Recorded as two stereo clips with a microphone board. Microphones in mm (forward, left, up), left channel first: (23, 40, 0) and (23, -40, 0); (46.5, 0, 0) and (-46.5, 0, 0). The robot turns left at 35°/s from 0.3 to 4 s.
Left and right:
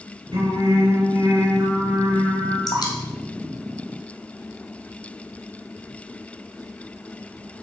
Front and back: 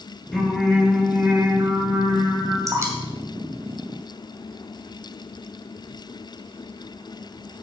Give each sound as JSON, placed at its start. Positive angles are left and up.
{"t": 0.3, "sound": "singing", "azimuth_deg": -85, "distance_m": 4.5}
{"t": 2.7, "sound": "dripping", "azimuth_deg": 125, "distance_m": 2.5}